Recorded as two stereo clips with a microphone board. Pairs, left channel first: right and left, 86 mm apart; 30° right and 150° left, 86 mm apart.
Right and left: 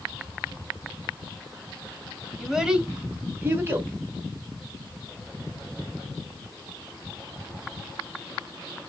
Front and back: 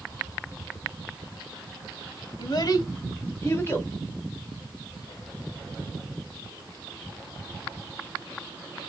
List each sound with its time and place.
2.4 s a child speaking: straight ahead, 1.1 m; by 3.9 s 30° left, 1.6 m